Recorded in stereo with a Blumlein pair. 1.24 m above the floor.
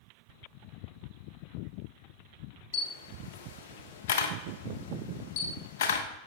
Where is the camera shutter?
55° left, 1.0 m.